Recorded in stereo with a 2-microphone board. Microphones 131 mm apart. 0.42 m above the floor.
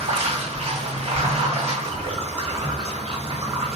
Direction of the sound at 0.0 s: 60° right (ahead or behind).